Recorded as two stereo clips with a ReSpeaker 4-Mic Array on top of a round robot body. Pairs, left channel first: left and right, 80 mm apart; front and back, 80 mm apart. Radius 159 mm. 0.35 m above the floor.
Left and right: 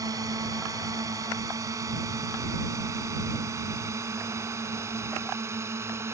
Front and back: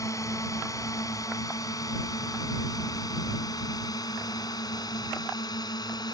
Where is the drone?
50° right; by 6.2 s 35° right.